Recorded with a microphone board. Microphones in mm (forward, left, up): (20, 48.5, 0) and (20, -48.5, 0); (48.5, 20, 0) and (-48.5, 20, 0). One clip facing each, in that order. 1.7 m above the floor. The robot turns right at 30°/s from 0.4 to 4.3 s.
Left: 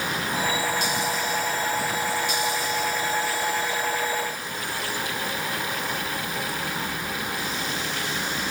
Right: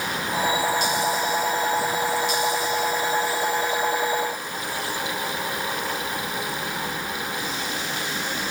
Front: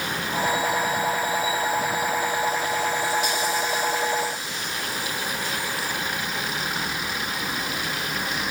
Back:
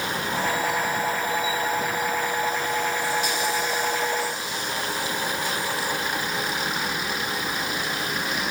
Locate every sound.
Only background noise.